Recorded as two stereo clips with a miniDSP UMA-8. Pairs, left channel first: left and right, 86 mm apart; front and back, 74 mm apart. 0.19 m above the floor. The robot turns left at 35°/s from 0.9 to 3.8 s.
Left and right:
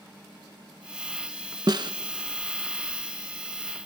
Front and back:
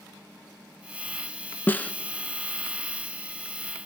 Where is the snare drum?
60° right, 0.8 m; by 1.9 s 70° right, 0.8 m.